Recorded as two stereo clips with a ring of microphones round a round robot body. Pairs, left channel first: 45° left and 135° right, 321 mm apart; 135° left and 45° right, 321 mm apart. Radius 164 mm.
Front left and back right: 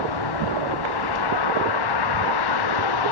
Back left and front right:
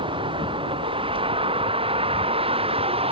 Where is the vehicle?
30° left.